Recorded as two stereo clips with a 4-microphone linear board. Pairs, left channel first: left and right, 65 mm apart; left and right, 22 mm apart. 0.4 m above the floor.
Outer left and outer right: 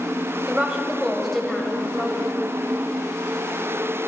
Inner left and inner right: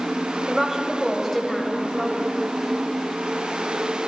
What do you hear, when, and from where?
0.5 s a woman speaking: 15° right (ahead or behind), 1.9 m; by 2.3 s 30° left (ahead or behind), 2 m